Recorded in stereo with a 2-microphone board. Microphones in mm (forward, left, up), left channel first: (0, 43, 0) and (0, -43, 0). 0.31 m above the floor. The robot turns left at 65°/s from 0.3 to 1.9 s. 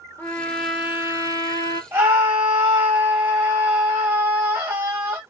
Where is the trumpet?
25° left, 0.6 m; by 1.8 s 70° right, 0.6 m.